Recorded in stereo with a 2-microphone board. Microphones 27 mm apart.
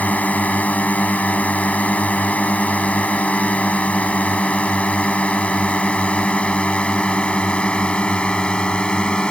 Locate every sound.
0.0 s a drone: 65° left (ahead or behind); by 9.3 s 35° left (ahead or behind)